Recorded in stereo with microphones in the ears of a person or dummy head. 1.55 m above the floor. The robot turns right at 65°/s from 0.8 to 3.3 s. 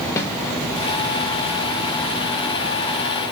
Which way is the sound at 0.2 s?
20° left (ahead or behind).